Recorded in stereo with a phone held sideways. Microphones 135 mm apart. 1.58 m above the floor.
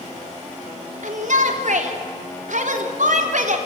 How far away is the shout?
About 3 m.